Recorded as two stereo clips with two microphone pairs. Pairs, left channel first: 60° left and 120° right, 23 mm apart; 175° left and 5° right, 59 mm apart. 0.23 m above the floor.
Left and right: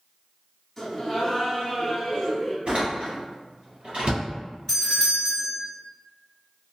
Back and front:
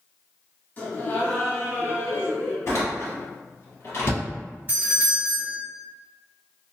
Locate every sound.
0.8 s laughter: 135° left, 1.2 m
2.7 s a door slam: 145° right, 1.8 m
4.7 s a doorbell: 5° right, 1.6 m